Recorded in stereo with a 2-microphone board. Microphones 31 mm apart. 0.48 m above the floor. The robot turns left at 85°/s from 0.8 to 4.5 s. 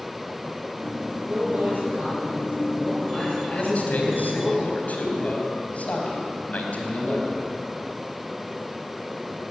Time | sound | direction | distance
1.2 | a man speaking | 30° right | 9.5 m
3.5 | a man speaking | 145° left | 4 m